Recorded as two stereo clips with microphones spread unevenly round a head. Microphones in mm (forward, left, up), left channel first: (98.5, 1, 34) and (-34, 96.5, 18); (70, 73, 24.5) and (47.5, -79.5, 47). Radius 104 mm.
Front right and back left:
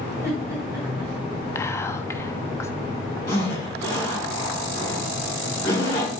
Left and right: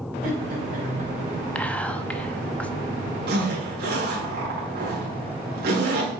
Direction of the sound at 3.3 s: 110° right.